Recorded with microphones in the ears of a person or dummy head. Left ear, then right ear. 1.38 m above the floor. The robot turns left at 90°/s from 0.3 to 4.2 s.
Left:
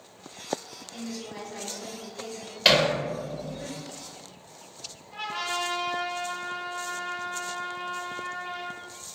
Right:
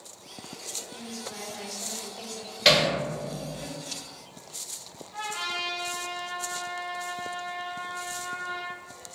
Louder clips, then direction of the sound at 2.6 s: Even; 20° left (ahead or behind).